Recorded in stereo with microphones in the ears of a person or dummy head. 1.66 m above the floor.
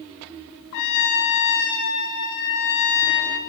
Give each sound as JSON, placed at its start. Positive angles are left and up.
{"t": 0.7, "sound": "a trumpet", "side_deg": 60, "distance_m": 3.5}